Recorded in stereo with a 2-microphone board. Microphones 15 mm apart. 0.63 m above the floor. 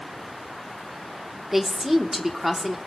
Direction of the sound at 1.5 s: 15° right (ahead or behind).